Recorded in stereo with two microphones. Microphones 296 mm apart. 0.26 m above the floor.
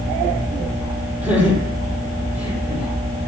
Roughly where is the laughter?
Centre.